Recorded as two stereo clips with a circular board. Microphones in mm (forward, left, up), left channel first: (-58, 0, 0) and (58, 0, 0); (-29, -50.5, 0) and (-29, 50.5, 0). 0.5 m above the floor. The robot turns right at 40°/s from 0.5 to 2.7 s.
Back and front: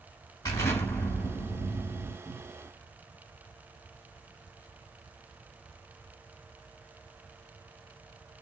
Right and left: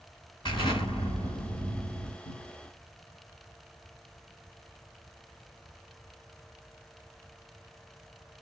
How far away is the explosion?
About 2 m.